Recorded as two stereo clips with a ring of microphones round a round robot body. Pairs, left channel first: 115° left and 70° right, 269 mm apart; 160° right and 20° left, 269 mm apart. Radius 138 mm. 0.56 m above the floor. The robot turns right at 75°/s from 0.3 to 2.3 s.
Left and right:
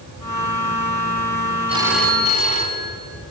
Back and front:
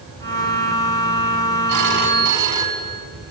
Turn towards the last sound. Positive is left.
turn(degrees=50)